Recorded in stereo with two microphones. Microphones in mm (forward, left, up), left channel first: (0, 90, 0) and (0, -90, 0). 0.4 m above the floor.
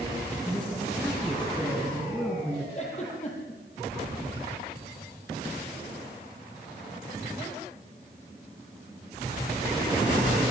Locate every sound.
0.4 s a man speaking: 5° left (ahead or behind), 6 m
2.8 s a giggle: 40° left (ahead or behind), 8.5 m